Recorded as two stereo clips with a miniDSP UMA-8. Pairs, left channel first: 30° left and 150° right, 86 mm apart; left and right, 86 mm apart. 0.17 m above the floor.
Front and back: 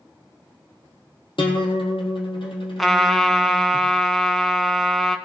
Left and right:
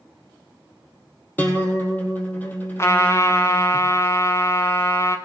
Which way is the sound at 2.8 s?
120° left.